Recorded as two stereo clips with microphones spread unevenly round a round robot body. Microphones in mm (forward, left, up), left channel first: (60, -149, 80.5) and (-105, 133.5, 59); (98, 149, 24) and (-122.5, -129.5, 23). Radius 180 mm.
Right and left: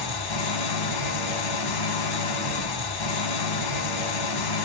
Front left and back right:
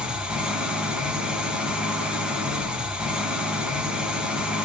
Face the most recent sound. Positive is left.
turn(degrees=-40)